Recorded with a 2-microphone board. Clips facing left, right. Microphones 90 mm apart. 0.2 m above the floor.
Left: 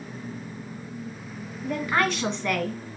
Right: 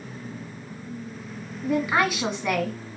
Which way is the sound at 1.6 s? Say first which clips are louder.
Right 2 dB; 10° right (ahead or behind).